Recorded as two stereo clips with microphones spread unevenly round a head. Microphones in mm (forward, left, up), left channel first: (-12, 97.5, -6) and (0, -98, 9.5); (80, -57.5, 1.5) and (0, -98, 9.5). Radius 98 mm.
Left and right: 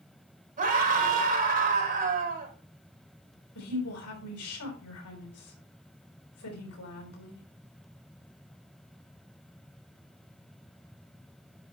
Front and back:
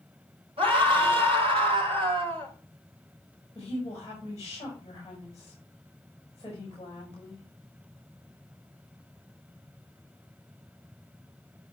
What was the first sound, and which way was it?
A scream, 140° right.